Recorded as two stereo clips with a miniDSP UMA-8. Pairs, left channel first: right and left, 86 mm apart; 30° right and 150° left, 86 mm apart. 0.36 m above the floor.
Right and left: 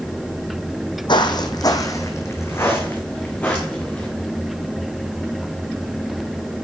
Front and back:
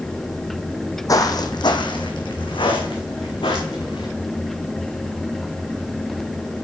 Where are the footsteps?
70° right, 0.8 m; by 4.1 s 15° right, 1.8 m.